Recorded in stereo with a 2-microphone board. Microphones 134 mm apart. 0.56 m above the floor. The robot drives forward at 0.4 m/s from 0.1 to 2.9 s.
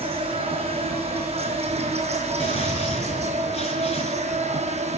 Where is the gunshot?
45° left (ahead or behind), 5 m; by 4.6 s 50° left (ahead or behind), 5 m.